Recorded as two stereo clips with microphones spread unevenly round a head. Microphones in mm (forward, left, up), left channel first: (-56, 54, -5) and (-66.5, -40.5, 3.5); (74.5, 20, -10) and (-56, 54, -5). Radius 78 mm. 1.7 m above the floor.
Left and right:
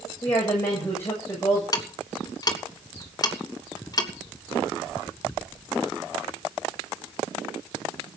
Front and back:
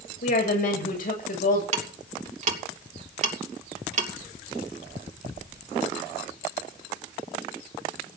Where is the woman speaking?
5° left, 8 m.